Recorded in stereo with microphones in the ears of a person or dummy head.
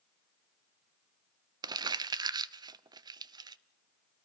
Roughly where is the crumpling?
Right.